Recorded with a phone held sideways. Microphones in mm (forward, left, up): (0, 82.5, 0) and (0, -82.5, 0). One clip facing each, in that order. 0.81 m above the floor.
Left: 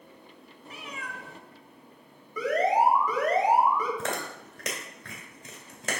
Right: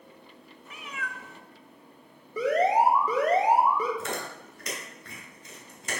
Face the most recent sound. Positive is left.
turn(degrees=85)